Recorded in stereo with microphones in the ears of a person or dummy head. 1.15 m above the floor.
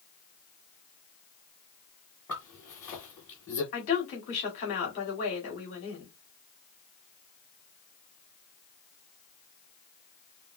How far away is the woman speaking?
About 2.5 m.